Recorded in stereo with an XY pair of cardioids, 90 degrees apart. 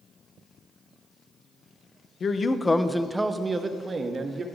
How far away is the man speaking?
About 0.6 m.